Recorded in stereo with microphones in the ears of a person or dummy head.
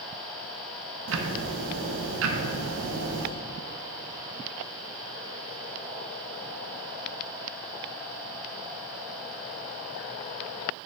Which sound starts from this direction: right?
Ticking, at 1.1 s.